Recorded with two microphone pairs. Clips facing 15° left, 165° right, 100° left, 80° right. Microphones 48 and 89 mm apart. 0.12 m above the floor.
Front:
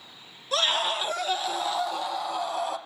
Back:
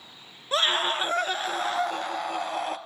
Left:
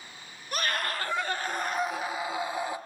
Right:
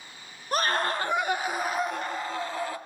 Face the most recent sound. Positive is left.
turn(degrees=165)